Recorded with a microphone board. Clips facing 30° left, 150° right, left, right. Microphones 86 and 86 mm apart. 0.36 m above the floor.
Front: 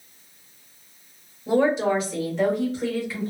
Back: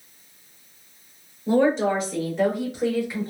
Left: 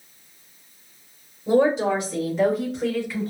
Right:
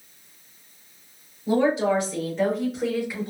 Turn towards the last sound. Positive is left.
turn(degrees=-120)